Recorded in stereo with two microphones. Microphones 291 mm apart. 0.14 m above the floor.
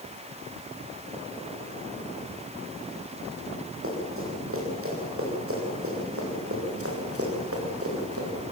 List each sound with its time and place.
3.8 s running footsteps: 50° right (ahead or behind), 10 m; by 8.3 s 55° right (ahead or behind), 7.5 m